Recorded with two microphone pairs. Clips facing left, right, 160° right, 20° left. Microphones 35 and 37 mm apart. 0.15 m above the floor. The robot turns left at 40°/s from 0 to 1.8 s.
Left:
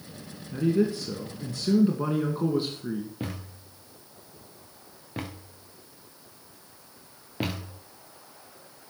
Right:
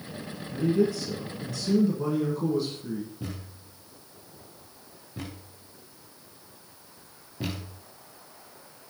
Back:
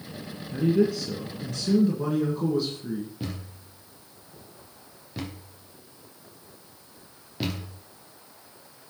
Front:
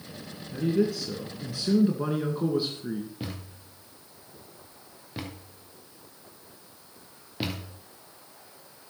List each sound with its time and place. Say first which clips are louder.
0.5 s a man speaking: even, back 3 dB; 130° left, 2 m; by 3.1 s 80° left, 2 m
3.2 s a thud: left 3 dB, back 2 dB; 100° left, 2.5 m